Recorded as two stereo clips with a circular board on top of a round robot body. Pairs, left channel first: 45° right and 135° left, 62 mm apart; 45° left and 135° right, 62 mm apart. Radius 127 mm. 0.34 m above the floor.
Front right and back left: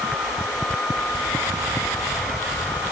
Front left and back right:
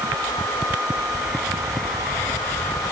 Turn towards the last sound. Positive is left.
No sound to turn to.